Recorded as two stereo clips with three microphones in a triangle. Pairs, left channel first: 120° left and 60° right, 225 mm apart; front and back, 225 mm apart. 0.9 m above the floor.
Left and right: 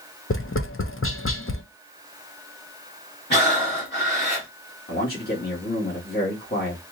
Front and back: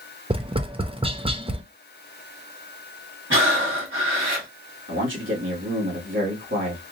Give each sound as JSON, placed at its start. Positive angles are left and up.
{"t": 0.3, "sound": "tapping", "azimuth_deg": 115, "distance_m": 0.5}
{"t": 3.3, "sound": "breathing", "azimuth_deg": 160, "distance_m": 2.5}
{"t": 4.9, "sound": "a man speaking", "azimuth_deg": 160, "distance_m": 1.8}